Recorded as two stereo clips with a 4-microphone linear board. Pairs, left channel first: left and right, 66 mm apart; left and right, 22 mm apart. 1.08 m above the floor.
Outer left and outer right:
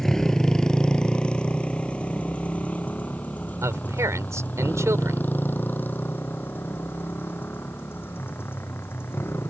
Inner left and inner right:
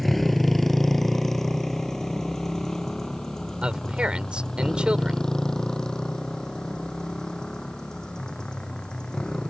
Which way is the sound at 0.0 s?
5° left (ahead or behind).